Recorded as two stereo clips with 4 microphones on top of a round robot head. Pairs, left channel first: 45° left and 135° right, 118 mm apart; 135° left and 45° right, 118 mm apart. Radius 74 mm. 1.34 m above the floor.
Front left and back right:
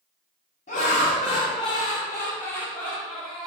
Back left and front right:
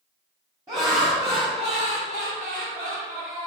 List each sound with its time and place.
0.7 s laughter: 20° left, 1.0 m; by 3.5 s 45° right, 1.6 m